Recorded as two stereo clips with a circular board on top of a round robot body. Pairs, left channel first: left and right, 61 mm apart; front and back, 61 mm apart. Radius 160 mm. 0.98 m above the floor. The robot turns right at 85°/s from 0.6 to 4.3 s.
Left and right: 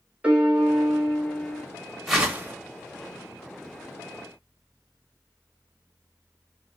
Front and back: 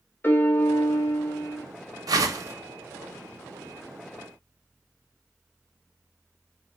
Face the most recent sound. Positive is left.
turn(degrees=10)